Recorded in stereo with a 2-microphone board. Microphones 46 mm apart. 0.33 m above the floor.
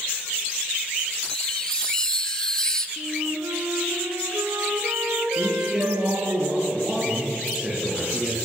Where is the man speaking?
15° right (ahead or behind), 7.5 m.